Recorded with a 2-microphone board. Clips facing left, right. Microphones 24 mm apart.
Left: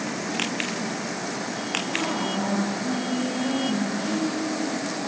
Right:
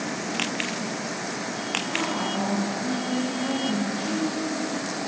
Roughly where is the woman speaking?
Right.